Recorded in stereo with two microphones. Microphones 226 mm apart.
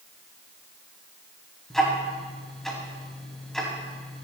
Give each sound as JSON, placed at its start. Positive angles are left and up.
{"t": 1.7, "sound": "ticking", "side_deg": 0, "distance_m": 3.5}